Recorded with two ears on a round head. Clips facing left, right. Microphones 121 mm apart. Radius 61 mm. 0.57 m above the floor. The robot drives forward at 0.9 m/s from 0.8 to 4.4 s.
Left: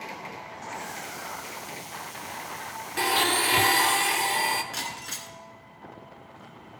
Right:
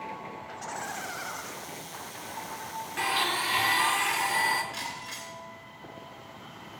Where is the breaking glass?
65° left (ahead or behind), 2 m.